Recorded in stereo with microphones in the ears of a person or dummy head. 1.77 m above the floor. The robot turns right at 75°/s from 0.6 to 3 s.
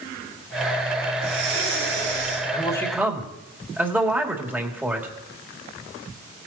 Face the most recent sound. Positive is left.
turn(degrees=-175)